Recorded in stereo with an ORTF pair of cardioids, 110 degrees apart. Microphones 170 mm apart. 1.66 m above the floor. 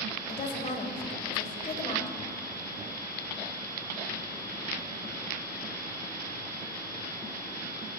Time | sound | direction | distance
0.3 | a woman speaking | 45° left | 1.5 m